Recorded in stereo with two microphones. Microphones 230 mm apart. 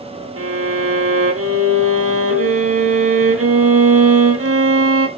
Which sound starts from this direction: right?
A violin, at 0.4 s.